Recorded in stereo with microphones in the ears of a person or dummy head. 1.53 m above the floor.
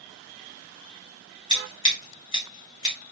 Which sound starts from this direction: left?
Scissors, at 1.5 s.